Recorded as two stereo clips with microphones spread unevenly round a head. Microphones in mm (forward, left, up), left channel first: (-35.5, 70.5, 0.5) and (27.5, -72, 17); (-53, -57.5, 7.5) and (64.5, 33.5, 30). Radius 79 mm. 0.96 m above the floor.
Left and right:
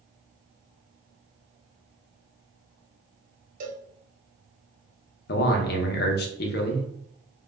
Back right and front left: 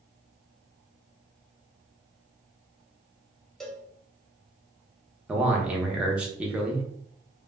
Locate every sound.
3.6 s a cowbell: 65° right, 0.5 m
5.3 s a man speaking: 125° left, 0.6 m